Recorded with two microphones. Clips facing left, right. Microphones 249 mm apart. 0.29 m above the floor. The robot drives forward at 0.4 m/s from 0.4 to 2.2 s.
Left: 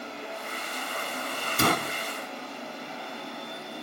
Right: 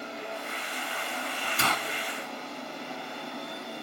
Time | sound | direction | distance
1.6 | a gunshot | 50° left (ahead or behind) | ?